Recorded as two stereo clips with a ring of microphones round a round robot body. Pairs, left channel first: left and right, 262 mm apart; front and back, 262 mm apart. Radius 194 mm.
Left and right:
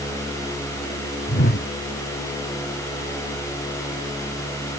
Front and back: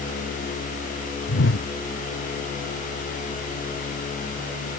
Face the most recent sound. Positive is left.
turn(degrees=40)